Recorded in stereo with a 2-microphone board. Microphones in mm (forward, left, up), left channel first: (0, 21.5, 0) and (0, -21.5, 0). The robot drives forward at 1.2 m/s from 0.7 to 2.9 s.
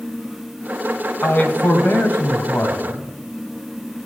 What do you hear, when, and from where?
1.2 s a man speaking: 60° left (ahead or behind), 3 m; by 3.0 s 55° left (ahead or behind), 3 m